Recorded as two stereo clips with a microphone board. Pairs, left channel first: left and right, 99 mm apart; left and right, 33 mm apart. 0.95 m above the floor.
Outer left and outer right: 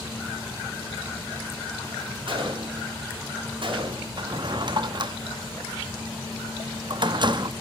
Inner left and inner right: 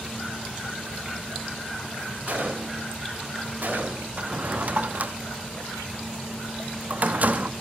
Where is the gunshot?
60° right (ahead or behind), 1.7 m.